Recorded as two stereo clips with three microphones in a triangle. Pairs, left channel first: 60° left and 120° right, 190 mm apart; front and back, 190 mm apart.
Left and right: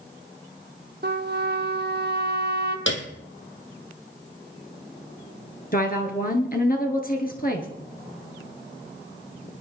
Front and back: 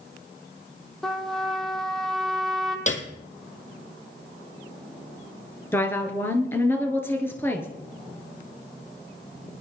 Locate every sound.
1.0 s a trumpet: 90° right, 1.2 m
2.9 s a piano: 55° left, 1.6 m
5.7 s a woman speaking: 75° left, 2 m